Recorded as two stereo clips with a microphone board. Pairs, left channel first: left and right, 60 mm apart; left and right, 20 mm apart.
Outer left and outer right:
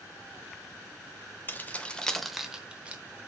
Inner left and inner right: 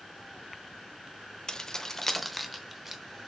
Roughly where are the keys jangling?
Left.